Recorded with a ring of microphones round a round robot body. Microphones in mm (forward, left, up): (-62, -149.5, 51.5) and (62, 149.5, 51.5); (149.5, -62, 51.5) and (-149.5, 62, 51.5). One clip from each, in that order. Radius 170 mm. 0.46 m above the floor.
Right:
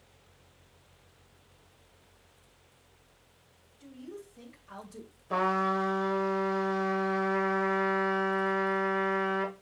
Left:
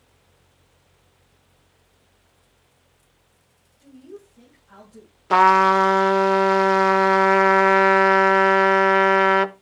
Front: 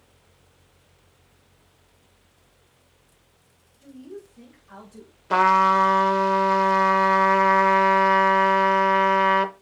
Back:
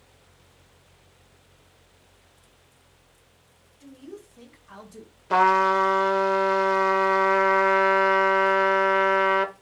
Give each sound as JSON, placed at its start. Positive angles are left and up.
{"t": 3.8, "sound": "a woman speaking", "azimuth_deg": -175, "distance_m": 3.0}
{"t": 5.3, "sound": "a trumpet", "azimuth_deg": 65, "distance_m": 0.7}